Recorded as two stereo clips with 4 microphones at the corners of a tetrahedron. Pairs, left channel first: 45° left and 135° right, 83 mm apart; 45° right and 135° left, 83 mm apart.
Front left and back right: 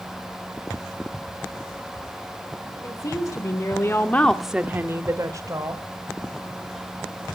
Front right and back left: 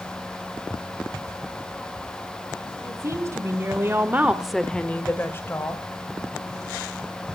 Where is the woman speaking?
85° left, 2.5 m; by 5.8 s 100° right, 2 m.